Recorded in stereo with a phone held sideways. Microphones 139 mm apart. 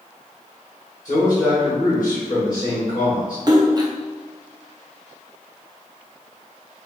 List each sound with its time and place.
1.1 s a man speaking: 25° left (ahead or behind), 1.7 m
3.5 s a splash: 30° right (ahead or behind), 0.6 m